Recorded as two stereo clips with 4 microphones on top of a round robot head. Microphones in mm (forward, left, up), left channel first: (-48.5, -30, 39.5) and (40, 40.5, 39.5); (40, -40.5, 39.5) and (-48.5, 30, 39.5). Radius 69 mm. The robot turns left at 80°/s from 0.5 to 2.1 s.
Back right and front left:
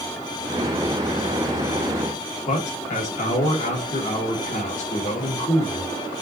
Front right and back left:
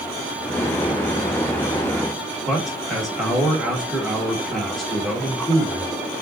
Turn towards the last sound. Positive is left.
turn(degrees=-125)